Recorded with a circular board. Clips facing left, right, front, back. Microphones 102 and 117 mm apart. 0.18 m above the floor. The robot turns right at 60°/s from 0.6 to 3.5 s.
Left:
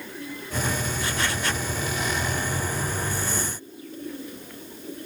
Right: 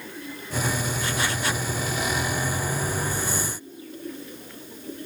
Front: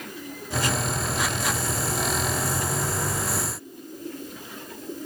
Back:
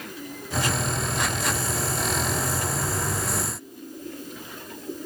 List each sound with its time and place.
Only background noise.